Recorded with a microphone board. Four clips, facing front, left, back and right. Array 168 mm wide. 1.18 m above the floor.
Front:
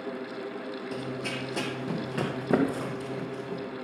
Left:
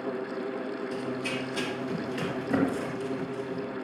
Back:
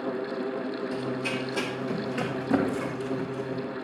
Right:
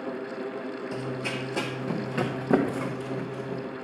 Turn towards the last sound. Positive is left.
turn(degrees=-50)